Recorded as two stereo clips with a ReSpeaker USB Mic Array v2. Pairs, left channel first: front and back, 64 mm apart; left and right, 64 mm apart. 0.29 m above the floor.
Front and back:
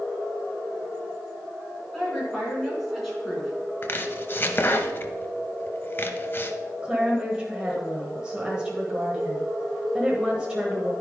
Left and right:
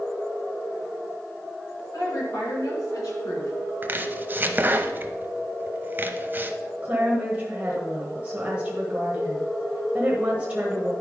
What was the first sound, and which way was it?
A woman speaking, 85° left.